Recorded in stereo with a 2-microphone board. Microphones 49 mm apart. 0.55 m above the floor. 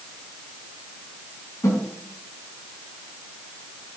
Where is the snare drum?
70° left (ahead or behind), 5 m.